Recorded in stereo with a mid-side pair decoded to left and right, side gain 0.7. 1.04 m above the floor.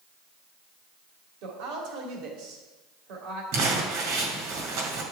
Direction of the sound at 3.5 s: 70° right.